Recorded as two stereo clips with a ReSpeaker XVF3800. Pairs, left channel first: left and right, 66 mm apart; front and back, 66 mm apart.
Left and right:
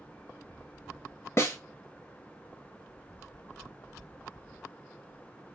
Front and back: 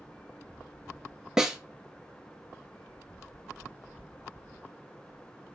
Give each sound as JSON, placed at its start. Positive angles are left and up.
{"t": 1.4, "sound": "a snare drum", "azimuth_deg": 100, "distance_m": 0.7}